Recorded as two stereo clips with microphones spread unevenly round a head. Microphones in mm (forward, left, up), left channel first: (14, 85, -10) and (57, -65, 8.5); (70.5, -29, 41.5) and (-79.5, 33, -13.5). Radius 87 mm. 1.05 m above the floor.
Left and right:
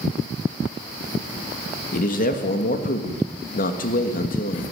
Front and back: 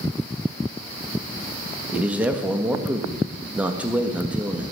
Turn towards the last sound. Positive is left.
turn(degrees=85)